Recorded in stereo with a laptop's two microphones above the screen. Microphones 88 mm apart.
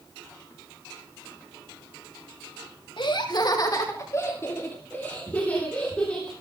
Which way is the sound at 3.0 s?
65° left (ahead or behind).